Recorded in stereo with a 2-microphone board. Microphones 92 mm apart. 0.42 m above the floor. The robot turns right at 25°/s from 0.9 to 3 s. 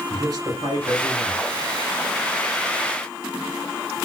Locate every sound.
0.1 s a man speaking: 45° right (ahead or behind), 1.9 m; by 1.5 s 50° right (ahead or behind), 1.9 m